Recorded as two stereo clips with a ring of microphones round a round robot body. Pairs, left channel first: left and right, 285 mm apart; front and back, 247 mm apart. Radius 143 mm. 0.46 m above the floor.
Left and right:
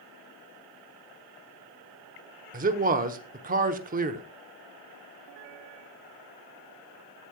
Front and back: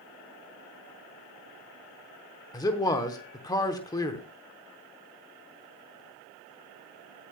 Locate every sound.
2.5 s a man speaking: 65° right, 0.9 m